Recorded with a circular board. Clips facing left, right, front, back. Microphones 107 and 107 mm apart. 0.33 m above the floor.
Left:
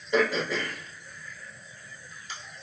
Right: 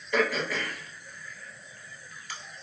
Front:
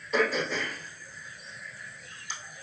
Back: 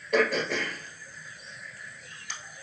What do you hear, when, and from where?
0.1 s throat clearing: 155° left, 1.0 m